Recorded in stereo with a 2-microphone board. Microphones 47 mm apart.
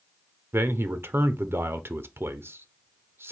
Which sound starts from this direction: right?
A man speaking, at 0.5 s.